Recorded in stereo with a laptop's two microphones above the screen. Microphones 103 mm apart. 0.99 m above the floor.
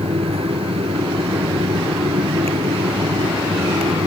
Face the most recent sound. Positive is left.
turn(degrees=-75)  # may be behind; listen again after turning